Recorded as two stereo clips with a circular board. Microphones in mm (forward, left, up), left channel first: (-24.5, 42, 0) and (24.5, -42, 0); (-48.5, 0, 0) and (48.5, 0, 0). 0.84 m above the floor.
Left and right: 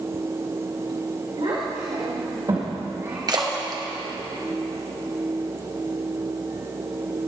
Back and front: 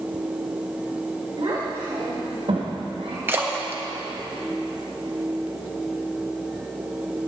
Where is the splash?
60° right, 1.2 m.